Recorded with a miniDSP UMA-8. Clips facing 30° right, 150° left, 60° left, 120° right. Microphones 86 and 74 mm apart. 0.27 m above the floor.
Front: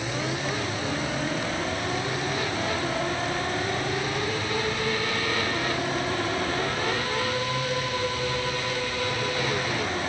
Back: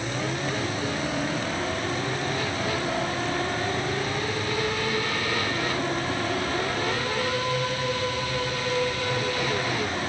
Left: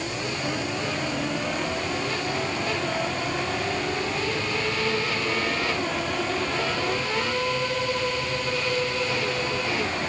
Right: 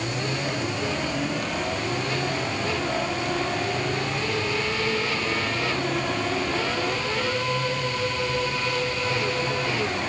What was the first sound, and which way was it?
Only background noise.